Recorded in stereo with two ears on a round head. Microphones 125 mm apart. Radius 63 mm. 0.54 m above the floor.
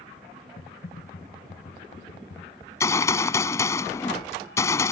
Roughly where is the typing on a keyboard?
Left.